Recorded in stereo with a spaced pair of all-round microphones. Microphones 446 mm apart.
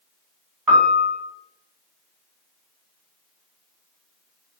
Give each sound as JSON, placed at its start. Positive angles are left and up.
{"t": 0.7, "sound": "a piano", "side_deg": -45, "distance_m": 1.1}